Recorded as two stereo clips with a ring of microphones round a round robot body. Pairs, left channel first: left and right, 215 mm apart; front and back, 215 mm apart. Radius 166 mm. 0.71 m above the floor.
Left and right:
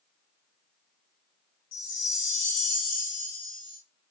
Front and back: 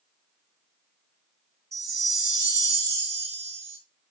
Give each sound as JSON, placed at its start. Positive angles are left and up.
{"t": 1.7, "sound": "a chime", "azimuth_deg": 140, "distance_m": 3.5}